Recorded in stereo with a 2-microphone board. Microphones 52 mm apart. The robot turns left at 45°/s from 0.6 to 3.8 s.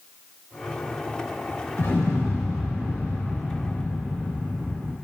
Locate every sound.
1.8 s an explosion: 120° left, 2.5 m; by 4.9 s 25° left, 2.5 m